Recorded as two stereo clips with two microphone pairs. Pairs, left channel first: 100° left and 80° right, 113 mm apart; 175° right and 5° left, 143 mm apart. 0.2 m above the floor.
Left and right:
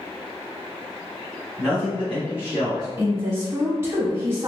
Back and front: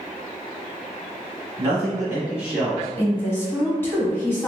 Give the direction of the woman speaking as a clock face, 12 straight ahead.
4 o'clock.